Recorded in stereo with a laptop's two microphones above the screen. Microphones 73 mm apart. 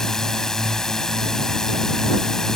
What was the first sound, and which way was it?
A drone, 5° left (ahead or behind).